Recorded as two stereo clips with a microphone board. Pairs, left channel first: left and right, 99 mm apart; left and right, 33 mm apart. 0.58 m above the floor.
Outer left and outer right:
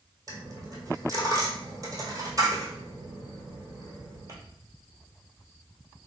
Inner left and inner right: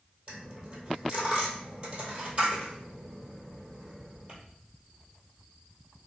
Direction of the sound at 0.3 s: 35° right (ahead or behind).